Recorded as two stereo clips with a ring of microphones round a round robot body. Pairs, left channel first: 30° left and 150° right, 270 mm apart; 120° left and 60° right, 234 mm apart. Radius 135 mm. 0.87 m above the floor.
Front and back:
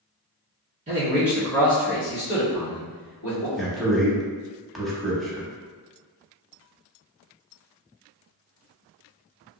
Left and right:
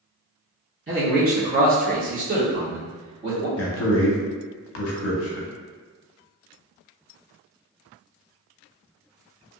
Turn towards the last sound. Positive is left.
turn(degrees=120)